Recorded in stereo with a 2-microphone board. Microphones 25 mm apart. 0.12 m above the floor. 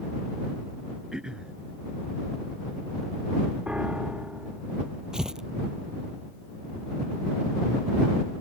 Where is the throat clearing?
35° right (ahead or behind).